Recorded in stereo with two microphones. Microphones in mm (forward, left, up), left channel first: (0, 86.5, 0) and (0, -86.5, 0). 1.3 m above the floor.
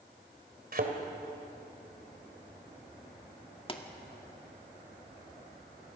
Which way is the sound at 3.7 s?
30° left (ahead or behind).